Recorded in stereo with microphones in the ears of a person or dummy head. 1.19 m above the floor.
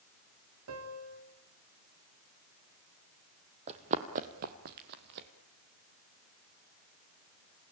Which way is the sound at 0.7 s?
80° right.